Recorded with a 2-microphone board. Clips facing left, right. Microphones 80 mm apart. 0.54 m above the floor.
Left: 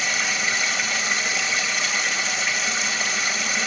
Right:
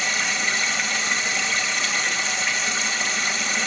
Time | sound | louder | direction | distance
0.0 | running water | even | 5° left (ahead or behind) | 2 m